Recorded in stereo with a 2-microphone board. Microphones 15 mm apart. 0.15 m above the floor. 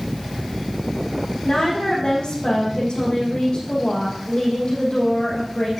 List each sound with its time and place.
1.4 s a woman speaking: 65° left (ahead or behind), 6 m